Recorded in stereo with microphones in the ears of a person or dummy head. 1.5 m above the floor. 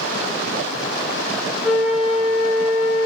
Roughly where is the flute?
Centre.